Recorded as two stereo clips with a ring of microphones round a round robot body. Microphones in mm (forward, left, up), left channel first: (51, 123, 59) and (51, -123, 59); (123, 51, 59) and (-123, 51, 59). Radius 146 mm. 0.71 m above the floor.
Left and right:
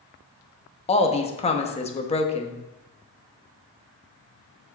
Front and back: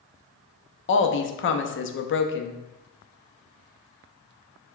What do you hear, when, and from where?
0.9 s a woman speaking: 30° left, 0.7 m